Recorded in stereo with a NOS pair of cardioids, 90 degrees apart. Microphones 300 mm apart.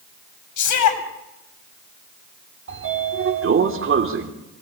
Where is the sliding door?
40° right, 3.5 m.